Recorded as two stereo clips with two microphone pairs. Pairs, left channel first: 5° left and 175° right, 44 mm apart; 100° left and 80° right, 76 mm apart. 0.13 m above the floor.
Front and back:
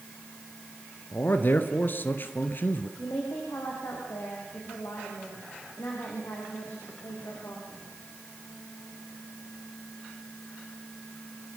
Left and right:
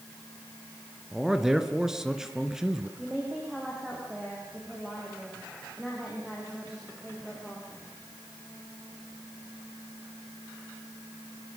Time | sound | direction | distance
1.1 | a man speaking | straight ahead | 1.6 m
3.0 | a woman speaking | 10° left | 6 m